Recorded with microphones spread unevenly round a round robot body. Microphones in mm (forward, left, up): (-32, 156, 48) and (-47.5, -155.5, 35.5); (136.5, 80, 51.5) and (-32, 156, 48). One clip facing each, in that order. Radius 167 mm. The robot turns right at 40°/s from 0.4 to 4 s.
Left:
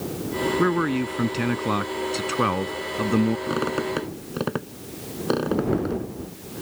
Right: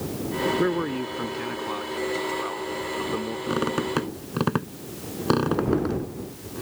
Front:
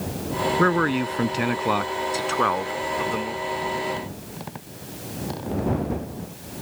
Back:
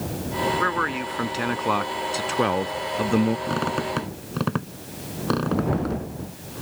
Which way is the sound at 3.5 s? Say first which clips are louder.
Even, back 1 dB; 175° left.